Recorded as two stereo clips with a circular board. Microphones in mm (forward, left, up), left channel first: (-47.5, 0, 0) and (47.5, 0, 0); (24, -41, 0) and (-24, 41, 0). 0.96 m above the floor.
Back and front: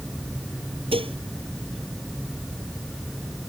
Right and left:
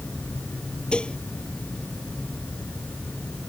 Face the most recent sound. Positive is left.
turn(degrees=20)